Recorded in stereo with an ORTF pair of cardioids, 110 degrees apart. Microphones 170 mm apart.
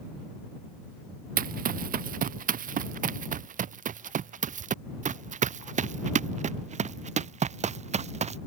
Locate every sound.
1.4 s running footsteps: 55° right; by 8.4 s 40° right